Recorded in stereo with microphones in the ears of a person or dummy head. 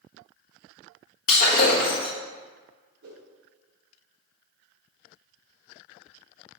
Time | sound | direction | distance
1.3 | breaking glass | 50° left (ahead or behind) | 1.5 m
3.0 | a whoosh | 70° right (ahead or behind) | 1.9 m